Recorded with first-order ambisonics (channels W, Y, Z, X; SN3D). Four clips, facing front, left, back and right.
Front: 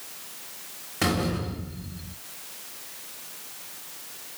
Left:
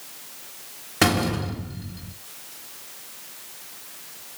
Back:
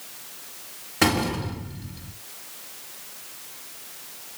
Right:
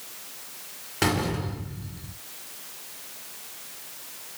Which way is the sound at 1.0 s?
105° left.